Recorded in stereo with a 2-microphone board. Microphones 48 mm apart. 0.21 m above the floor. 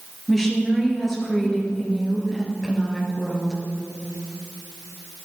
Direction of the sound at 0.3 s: 5° left (ahead or behind).